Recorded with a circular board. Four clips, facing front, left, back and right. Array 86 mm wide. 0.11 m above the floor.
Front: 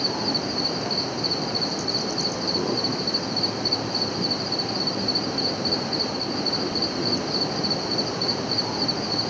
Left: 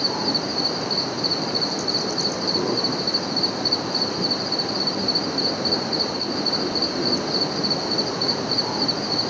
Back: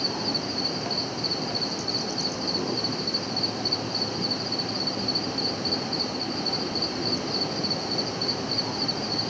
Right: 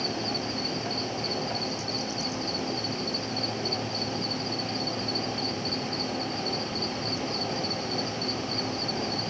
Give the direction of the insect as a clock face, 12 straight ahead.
10 o'clock.